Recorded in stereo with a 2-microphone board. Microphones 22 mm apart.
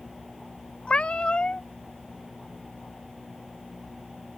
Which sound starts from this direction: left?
A cat meowing, at 0.9 s.